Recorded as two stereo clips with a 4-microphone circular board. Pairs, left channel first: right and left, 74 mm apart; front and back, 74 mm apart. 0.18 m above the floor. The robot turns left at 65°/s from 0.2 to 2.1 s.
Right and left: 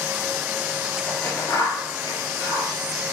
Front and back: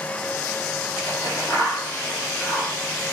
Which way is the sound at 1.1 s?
20° right.